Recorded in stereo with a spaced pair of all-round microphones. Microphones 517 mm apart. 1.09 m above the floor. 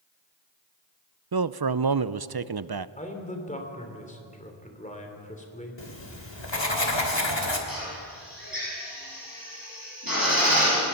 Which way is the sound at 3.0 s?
15° left (ahead or behind).